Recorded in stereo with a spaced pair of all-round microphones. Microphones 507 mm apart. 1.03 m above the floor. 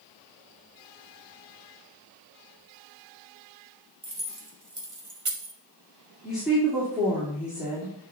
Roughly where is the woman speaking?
Centre.